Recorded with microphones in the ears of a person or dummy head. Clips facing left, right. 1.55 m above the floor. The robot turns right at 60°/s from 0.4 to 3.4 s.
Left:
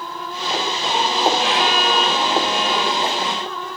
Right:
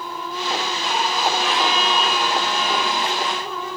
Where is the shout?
No shout in this recording.